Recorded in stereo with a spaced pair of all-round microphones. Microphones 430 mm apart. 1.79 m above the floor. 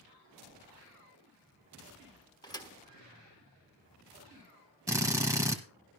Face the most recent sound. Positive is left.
turn(degrees=-5)  # may be behind; listen again after turning